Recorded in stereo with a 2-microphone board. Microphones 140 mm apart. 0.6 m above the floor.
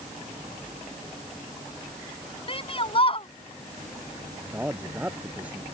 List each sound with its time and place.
2.5 s a shout: 40° left (ahead or behind)
4.5 s a man speaking: 10° right (ahead or behind)